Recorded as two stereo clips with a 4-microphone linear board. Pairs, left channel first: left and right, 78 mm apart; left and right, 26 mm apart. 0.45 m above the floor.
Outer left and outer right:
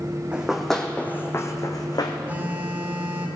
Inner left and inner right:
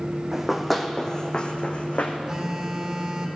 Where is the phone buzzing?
25° right (ahead or behind), 1.3 m.